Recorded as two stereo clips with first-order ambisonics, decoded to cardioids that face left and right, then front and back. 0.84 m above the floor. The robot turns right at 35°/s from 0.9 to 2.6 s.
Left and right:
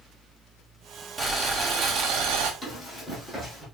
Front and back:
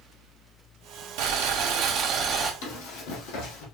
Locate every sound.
1.2 s boiling: 160° right, 0.9 m; by 2.5 s 115° right, 0.9 m
2.6 s running footsteps: 10° left, 1.9 m; by 3.6 s 10° right, 2 m